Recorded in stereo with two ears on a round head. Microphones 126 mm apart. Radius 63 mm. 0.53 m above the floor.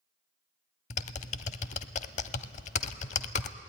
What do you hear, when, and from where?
0.9 s typing on a keyboard: 50° left (ahead or behind), 0.6 m